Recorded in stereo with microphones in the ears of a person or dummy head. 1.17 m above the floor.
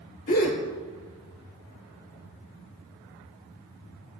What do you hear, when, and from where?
0.3 s a gasp: 40° left (ahead or behind), 2.5 m